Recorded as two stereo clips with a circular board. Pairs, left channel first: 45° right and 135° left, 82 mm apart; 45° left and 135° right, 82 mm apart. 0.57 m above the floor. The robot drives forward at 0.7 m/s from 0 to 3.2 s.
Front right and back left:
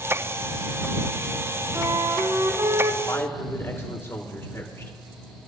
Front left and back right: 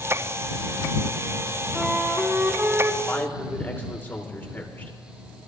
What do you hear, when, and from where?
1.8 s a flute: 135° left, 1.0 m; by 3.0 s 160° left, 1.5 m
3.1 s a man speaking: 5° right, 1.7 m; by 4.9 s 10° right, 1.6 m